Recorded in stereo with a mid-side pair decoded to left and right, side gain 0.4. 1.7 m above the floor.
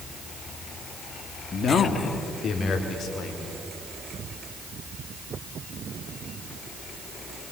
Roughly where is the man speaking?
Ahead left.